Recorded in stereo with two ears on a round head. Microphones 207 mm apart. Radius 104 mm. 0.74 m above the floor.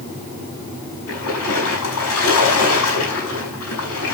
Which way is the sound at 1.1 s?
75° left (ahead or behind).